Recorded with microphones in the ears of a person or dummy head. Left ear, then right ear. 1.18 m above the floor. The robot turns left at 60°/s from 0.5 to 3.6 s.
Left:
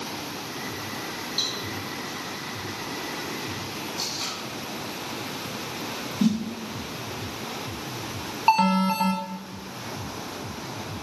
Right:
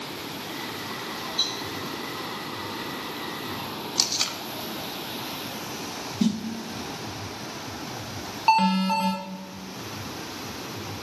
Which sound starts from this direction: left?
A cowbell, at 1.4 s.